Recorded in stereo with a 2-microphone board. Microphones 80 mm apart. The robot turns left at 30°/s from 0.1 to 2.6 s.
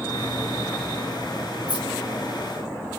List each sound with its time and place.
1.7 s keys jangling: 85° right, 3 m